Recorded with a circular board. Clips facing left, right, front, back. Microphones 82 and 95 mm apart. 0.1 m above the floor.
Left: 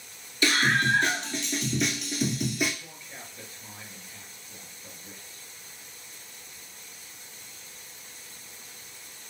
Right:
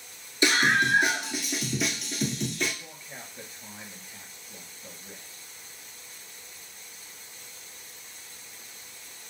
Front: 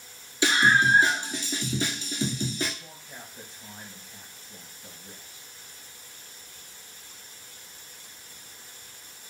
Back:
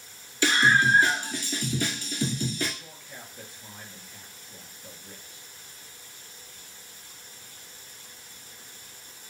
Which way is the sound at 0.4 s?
55° right.